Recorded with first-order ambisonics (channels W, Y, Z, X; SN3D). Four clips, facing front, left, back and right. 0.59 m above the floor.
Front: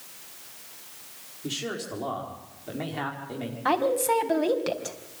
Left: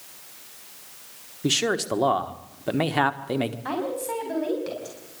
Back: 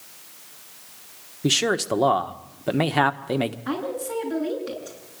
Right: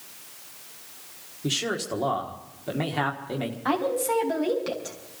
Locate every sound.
1.4 s a man speaking: 155° left, 1.4 m
3.6 s a woman speaking: 10° right, 4.5 m